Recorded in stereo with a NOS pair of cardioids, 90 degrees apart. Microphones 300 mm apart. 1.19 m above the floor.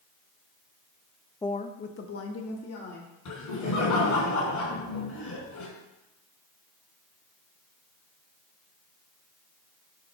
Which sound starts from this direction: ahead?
A woman speaking, at 1.4 s.